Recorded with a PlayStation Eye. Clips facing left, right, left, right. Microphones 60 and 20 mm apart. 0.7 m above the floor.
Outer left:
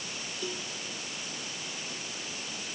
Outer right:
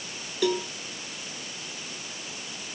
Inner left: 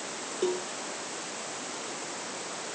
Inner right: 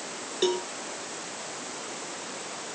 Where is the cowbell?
80° right.